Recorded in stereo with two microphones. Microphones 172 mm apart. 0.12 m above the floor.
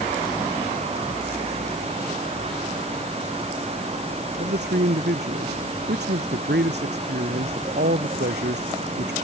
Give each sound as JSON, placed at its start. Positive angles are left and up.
{"t": 4.4, "sound": "a man speaking", "side_deg": -75}